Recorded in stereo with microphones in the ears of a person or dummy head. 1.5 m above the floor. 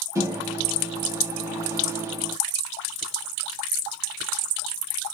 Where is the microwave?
15° right (ahead or behind), 0.6 m.